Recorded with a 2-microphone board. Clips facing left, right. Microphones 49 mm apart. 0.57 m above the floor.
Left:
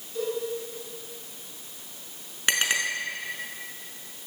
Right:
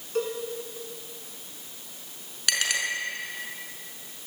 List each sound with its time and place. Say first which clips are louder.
0.1 s a cowbell: right 2 dB; 70° right (ahead or behind), 5 m
2.5 s a clink: left 2 dB; 30° left (ahead or behind), 4.5 m